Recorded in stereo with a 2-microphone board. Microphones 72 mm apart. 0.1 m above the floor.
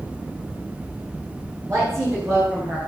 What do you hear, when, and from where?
1.7 s a woman speaking: 45° right (ahead or behind), 9 m; by 2.8 s 40° right (ahead or behind), 9 m